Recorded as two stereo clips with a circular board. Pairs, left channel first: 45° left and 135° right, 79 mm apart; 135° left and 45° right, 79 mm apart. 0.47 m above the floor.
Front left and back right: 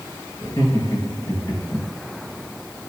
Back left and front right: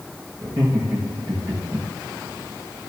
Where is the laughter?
Straight ahead, 6.5 m.